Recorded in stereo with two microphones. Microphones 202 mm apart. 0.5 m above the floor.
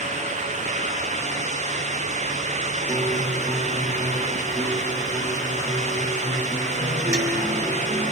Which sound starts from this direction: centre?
A guitar, at 2.9 s.